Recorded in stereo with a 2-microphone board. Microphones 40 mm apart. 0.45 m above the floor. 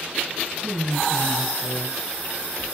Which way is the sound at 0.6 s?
25° left (ahead or behind).